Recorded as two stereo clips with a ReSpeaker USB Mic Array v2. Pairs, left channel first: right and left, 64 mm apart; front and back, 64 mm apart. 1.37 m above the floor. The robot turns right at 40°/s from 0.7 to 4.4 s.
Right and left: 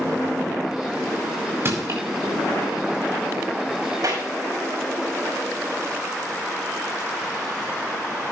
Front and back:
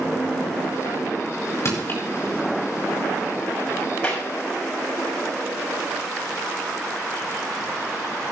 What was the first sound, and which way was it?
Crushing, 40° left.